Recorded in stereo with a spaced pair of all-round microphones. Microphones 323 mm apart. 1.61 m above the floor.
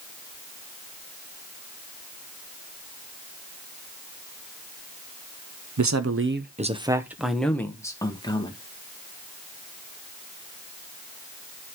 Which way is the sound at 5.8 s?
65° right (ahead or behind).